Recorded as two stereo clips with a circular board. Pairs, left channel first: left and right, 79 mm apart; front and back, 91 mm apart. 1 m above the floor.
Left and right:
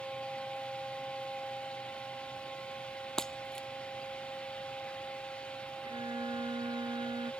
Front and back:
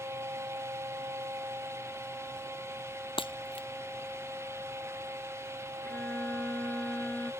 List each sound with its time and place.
3.2 s breaking glass: 5° left
5.8 s a violin: 75° right